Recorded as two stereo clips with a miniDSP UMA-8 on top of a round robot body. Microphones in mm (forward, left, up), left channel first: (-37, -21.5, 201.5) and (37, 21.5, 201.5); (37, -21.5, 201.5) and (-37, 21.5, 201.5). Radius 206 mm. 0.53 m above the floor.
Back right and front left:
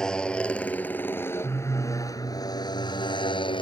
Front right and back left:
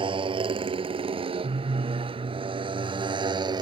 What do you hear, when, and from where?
0.0 s a motorcycle: 130° left; by 3.6 s 170° right